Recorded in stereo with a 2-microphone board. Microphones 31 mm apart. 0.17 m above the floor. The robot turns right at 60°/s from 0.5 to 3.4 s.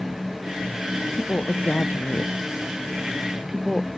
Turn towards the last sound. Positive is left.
turn(degrees=-20)  # may be behind; listen again after turning